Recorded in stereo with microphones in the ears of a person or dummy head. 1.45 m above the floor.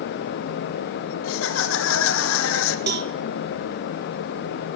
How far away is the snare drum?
No snare drum in this recording.